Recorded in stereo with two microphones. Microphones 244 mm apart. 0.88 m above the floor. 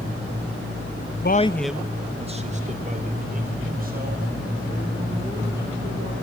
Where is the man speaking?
45° left (ahead or behind), 0.6 m; by 6.1 s 40° right (ahead or behind), 6.5 m.